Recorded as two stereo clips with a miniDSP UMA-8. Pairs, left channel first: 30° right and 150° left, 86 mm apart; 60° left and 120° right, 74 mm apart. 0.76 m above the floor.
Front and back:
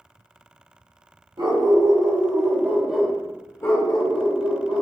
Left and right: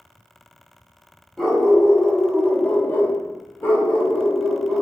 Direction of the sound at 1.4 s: 145° left.